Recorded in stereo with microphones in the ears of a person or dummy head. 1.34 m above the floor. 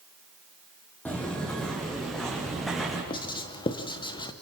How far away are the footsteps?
About 2.5 m.